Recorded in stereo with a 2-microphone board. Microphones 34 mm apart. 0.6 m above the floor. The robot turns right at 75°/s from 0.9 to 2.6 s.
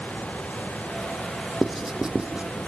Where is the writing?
Centre (ahead or behind), 1.1 m; by 2.5 s 40° right (ahead or behind), 1.1 m.